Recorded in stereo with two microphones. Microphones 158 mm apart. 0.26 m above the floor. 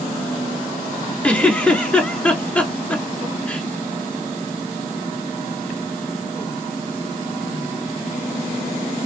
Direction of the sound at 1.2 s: 10° left (ahead or behind).